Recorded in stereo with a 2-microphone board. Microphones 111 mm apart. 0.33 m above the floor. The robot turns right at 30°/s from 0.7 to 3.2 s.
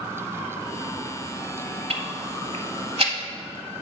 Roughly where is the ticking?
Right.